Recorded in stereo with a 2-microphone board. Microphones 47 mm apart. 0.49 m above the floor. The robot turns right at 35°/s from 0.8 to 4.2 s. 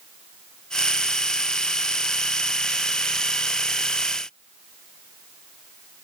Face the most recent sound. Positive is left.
No sound to turn to.